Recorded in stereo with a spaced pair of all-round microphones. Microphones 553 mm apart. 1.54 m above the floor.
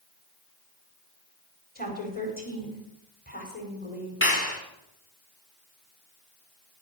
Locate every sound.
1.8 s a woman speaking: 15° left (ahead or behind), 5 m
4.2 s a clap: 20° left (ahead or behind), 4 m